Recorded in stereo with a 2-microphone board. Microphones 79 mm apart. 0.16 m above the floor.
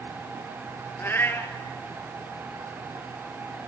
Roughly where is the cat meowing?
Left.